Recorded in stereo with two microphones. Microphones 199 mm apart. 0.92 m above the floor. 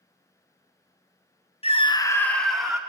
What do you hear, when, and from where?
1.6 s a scream: 30° left (ahead or behind), 0.8 m; by 2.8 s 5° right (ahead or behind), 1.5 m